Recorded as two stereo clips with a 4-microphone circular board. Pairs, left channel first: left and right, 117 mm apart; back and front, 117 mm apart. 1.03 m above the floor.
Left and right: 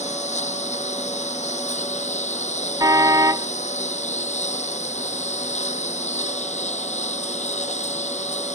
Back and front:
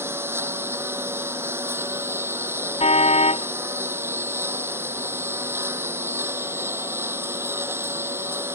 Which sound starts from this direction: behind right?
A car horn, at 2.8 s.